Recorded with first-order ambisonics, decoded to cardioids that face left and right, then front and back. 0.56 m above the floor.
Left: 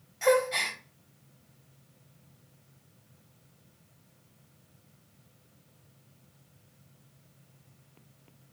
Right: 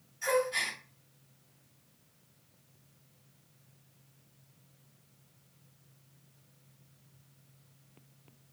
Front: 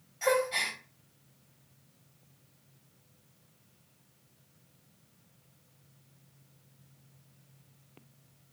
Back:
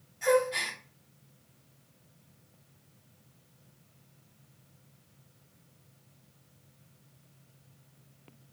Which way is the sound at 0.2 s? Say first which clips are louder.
Left 5 dB, back 2 dB; 70° left.